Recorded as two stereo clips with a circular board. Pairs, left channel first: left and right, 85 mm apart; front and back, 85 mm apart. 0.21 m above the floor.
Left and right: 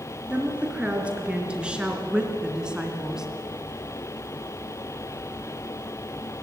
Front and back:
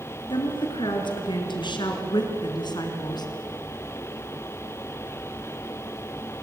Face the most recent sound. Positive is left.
turn(degrees=-10)